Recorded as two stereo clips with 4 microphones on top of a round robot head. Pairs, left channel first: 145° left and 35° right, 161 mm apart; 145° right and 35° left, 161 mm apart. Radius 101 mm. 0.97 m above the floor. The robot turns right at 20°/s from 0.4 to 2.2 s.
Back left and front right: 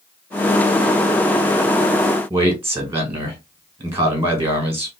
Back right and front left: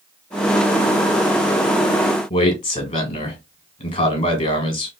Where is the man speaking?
110° right, 1.6 m.